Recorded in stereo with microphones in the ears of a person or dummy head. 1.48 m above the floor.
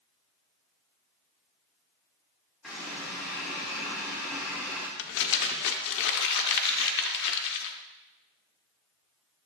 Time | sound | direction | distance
2.6 | a running tap | centre (ahead or behind) | 1.7 m
5.0 | crumpling | 70° left (ahead or behind) | 0.7 m